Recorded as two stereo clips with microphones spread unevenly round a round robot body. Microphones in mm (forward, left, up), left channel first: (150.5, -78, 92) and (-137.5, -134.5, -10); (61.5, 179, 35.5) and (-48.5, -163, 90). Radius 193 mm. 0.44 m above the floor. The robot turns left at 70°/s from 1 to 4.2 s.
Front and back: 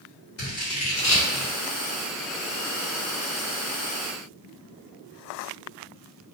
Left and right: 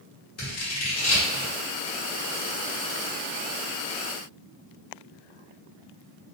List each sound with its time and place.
0.4 s scissors: 60° left, 1.2 m; by 1.5 s 25° left, 1.2 m